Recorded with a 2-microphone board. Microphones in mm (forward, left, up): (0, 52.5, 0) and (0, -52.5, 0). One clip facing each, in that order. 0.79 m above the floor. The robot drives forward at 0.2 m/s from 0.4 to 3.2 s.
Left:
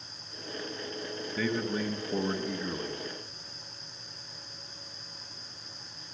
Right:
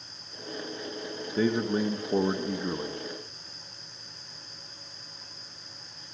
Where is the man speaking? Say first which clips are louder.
Right 5 dB; 30° right (ahead or behind), 0.8 m; by 3.0 s 25° right (ahead or behind), 1.0 m.